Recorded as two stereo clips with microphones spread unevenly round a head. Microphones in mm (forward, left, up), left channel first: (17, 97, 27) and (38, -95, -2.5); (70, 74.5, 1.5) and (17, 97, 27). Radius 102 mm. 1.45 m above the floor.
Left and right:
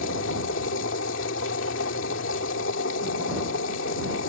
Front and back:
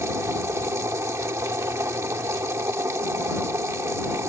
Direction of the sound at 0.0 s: 130° left.